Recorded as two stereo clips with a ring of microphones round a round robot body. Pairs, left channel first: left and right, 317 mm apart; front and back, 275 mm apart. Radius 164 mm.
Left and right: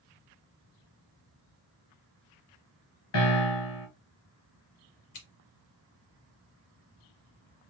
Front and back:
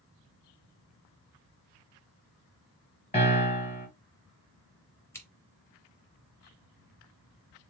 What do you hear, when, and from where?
3.1 s a piano: 65° left, 3 m
5.1 s scissors: 80° left, 2.5 m